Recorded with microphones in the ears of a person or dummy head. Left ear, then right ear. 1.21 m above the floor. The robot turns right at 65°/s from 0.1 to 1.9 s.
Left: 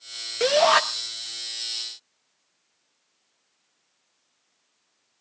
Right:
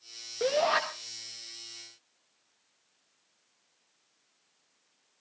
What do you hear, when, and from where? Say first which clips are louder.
0.4 s a shout: left 8 dB; 65° left (ahead or behind), 1.7 m; by 0.8 s 40° left (ahead or behind), 1.7 m